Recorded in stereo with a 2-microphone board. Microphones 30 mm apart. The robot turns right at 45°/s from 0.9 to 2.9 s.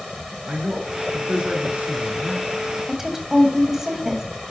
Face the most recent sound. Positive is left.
turn(degrees=-15)  # may be behind; listen again after turning